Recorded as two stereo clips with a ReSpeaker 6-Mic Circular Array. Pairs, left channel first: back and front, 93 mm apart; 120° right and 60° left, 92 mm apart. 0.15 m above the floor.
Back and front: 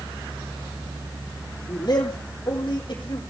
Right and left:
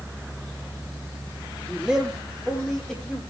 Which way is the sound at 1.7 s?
140° left.